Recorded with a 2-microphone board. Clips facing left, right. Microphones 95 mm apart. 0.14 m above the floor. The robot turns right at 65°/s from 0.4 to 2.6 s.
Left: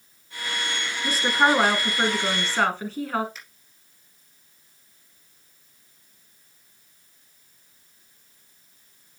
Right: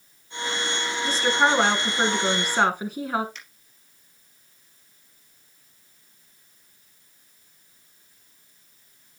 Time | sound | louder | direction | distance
1.0 | a woman speaking | left 1 dB | 15° left (ahead or behind) | 1.0 m
3.4 | a finger snap | even | 5° left (ahead or behind) | 3.5 m